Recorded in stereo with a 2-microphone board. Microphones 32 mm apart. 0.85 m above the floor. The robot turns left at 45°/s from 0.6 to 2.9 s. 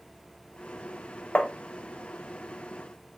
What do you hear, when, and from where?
1.4 s tapping: 40° left (ahead or behind), 0.6 m; by 1.5 s 50° left (ahead or behind), 0.6 m